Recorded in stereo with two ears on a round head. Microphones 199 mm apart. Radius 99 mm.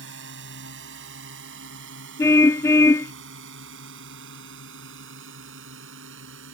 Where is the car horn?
15° left (ahead or behind).